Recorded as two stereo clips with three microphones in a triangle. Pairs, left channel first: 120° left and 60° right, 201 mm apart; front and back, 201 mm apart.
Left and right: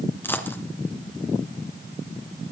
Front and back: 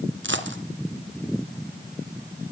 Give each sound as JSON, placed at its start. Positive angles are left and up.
{"t": 0.2, "sound": "a dropped coin", "azimuth_deg": -160, "distance_m": 2.0}